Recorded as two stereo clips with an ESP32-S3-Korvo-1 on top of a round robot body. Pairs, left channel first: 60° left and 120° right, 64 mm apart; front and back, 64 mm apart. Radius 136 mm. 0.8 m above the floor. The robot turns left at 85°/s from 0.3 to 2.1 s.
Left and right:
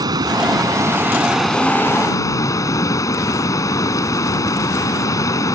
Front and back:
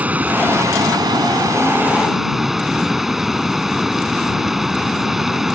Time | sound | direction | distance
0.0 | running water | 115° right | ?